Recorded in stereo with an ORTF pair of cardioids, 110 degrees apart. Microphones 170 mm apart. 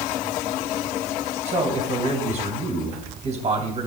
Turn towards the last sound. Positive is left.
turn(degrees=-40)